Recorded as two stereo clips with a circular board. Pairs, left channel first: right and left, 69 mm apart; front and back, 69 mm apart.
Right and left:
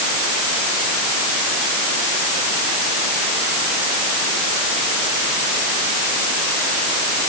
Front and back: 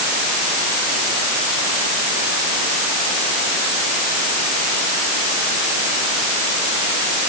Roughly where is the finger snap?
I don't hear a finger snap.